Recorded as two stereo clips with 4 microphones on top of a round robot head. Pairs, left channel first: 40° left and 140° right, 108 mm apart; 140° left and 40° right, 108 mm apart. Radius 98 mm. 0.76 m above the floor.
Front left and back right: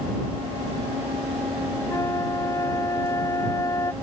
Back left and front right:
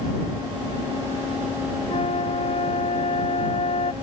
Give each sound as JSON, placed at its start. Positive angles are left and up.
{"t": 1.9, "sound": "a flute", "azimuth_deg": 105}